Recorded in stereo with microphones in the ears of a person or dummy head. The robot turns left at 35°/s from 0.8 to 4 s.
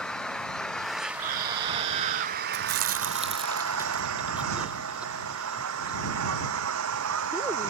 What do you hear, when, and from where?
0.0 s an engine running: 5° left; by 7.7 s 105° right
1.2 s a scream: 40° right; by 2.4 s 80° right
2.5 s chewing: 55° right (ahead or behind); by 7.7 s 5° right (ahead or behind)